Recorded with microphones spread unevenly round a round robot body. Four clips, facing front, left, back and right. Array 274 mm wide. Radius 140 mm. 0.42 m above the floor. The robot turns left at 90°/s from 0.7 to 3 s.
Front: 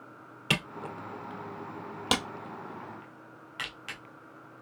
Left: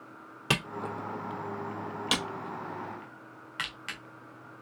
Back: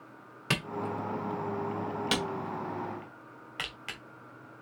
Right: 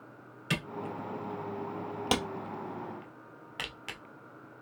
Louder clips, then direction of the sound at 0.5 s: Left 3 dB, back 2 dB; 95° left.